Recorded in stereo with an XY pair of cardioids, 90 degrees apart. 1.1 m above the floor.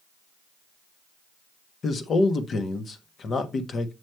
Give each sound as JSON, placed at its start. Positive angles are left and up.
{"t": 1.8, "sound": "a man speaking", "azimuth_deg": 55, "distance_m": 1.3}